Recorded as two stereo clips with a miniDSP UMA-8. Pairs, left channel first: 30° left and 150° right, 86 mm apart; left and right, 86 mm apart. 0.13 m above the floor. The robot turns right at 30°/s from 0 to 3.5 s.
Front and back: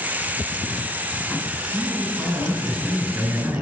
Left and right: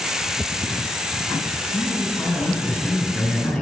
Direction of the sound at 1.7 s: 105° left.